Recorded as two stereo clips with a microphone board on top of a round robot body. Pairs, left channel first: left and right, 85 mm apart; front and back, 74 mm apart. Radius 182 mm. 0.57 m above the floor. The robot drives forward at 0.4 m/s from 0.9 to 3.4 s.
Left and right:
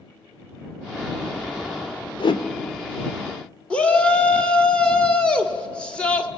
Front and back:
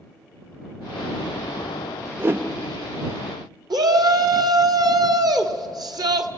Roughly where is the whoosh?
Behind left.